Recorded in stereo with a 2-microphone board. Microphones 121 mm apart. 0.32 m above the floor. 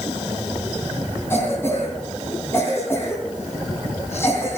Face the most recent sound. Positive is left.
turn(degrees=20)  # may be behind; listen again after turning